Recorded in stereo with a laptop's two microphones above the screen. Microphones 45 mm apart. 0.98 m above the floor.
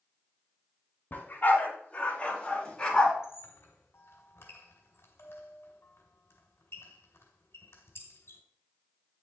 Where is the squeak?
70° left (ahead or behind), 2 m.